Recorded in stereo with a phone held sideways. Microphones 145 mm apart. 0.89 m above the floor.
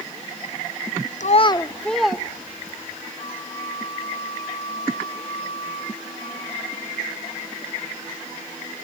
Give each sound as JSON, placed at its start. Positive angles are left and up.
{"t": 1.2, "sound": "a child speaking", "side_deg": 60, "distance_m": 0.7}
{"t": 3.2, "sound": "a flute", "side_deg": 40, "distance_m": 7.0}